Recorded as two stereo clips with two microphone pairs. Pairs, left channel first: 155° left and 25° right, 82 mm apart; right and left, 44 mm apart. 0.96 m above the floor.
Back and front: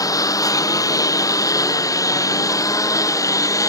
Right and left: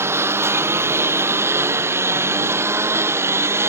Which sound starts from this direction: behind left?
A lawn mower, at 0.0 s.